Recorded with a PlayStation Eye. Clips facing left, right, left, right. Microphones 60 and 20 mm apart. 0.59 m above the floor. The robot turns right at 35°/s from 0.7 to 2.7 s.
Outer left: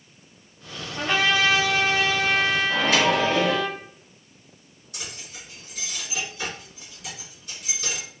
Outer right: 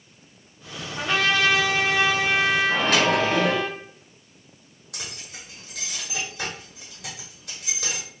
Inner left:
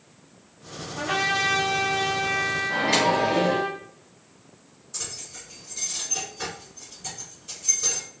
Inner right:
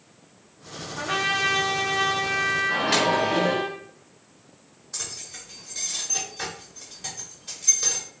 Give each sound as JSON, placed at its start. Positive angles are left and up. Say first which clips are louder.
{"t": 1.0, "sound": "a trumpet", "louder": "even, even", "side_deg": 10, "distance_m": 1.1}
{"t": 2.7, "sound": "a microwave", "louder": "even, inner left 3 dB", "side_deg": -60, "distance_m": 1.7}
{"t": 4.9, "sound": "keys jangling", "louder": "even, inner right 1 dB", "side_deg": -75, "distance_m": 1.3}